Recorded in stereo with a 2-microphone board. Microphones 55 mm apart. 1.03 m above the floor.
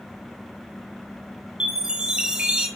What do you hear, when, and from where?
1.6 s a chime: 15° right (ahead or behind), 2.5 m